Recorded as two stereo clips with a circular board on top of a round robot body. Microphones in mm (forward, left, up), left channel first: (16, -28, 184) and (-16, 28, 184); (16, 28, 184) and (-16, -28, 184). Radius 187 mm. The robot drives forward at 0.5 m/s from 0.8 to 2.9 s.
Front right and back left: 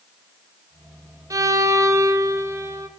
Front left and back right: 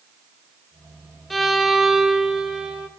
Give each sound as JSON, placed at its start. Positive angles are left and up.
{"t": 1.3, "sound": "a violin", "azimuth_deg": 150, "distance_m": 1.0}